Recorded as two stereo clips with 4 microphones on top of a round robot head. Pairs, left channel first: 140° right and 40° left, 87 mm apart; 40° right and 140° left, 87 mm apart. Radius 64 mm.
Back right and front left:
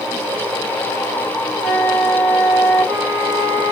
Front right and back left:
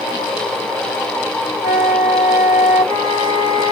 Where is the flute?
50° right, 1.6 m.